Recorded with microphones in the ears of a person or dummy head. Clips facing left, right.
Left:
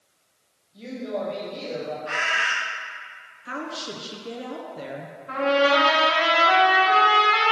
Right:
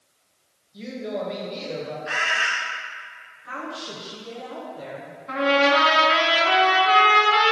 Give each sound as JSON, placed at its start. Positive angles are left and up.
{"t": 0.7, "sound": "a woman speaking", "side_deg": -25, "distance_m": 2.0}
{"t": 2.1, "sound": "a bird", "side_deg": -5, "distance_m": 0.7}
{"t": 3.5, "sound": "a woman speaking", "side_deg": 35, "distance_m": 0.7}
{"t": 5.3, "sound": "a trumpet", "side_deg": -35, "distance_m": 1.8}